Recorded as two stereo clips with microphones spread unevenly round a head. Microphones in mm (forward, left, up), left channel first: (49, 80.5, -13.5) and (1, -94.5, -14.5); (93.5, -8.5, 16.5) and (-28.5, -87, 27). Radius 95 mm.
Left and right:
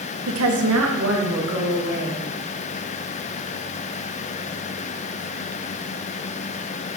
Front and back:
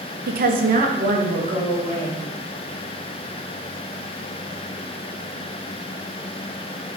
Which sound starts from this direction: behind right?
A woman speaking, at 0.3 s.